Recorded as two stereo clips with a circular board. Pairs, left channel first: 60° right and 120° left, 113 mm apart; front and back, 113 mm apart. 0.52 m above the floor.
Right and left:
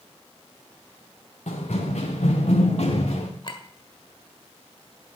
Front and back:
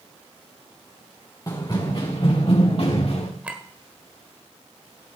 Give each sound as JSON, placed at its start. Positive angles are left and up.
{"t": 1.5, "sound": "running footsteps", "azimuth_deg": -60, "distance_m": 3.5}
{"t": 3.4, "sound": "a clink", "azimuth_deg": -105, "distance_m": 1.4}